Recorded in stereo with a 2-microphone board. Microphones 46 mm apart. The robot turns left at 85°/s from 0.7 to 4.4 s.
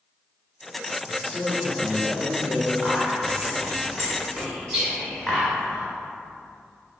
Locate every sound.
1.1 s a man speaking: 5° left (ahead or behind), 1.8 m; by 2.7 s 15° left (ahead or behind), 1.8 m
2.8 s whispering: centre (ahead or behind), 1.2 m; by 5.9 s 15° right (ahead or behind), 1.2 m